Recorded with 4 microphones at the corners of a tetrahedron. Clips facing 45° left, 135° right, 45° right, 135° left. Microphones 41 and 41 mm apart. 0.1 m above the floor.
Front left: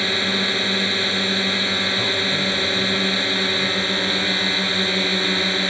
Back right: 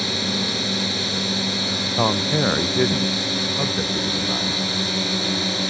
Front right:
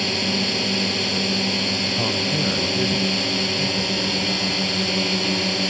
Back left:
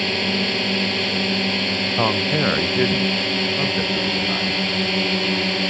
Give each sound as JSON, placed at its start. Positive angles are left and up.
{"t": 0.0, "sound": "a drone", "azimuth_deg": 75}
{"t": 2.0, "sound": "a man speaking", "azimuth_deg": -175}